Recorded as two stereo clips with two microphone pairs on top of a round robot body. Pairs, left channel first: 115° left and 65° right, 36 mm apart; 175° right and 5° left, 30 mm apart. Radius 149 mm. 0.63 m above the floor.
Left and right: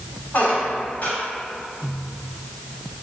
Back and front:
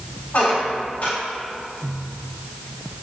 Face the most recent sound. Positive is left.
turn(degrees=160)